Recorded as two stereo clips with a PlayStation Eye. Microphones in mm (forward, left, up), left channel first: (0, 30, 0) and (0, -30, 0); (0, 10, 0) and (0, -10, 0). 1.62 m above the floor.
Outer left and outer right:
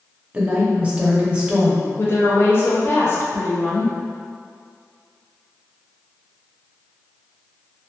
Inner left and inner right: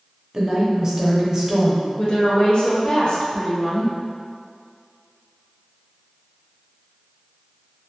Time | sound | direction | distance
0.3 | a woman speaking | 20° right (ahead or behind) | 0.7 m
2.0 | a woman speaking | 40° left (ahead or behind) | 0.7 m